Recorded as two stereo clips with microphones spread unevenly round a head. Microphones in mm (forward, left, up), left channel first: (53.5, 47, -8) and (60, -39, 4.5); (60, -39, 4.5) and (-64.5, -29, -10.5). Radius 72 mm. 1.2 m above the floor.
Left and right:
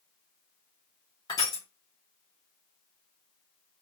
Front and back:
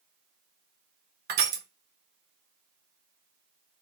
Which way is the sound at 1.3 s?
160° left.